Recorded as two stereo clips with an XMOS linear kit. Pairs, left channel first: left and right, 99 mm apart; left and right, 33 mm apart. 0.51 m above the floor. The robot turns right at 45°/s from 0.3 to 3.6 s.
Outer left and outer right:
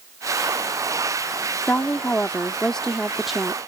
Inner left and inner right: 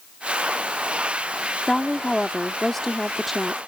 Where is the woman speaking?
20° left (ahead or behind); by 3.6 s 5° right (ahead or behind).